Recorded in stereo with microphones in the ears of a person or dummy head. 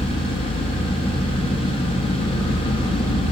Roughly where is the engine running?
Left.